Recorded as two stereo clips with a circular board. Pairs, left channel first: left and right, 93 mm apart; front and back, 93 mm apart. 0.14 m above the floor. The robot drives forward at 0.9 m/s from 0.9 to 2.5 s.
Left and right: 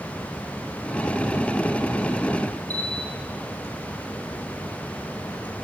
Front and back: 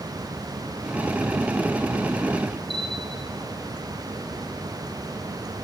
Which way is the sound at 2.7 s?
15° left.